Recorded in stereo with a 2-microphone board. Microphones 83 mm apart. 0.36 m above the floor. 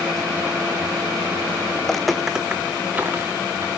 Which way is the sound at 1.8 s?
10° left (ahead or behind).